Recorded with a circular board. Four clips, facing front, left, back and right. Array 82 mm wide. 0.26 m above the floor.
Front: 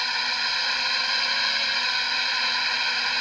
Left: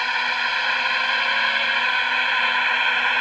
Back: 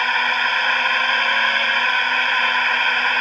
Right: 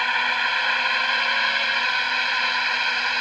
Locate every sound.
0.0 s a drone: 175° right; by 3.2 s 155° left